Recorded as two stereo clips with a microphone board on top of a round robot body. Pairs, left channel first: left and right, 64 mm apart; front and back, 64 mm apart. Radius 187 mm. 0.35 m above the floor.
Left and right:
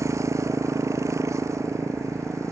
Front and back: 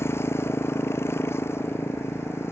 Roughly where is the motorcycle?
Ahead right.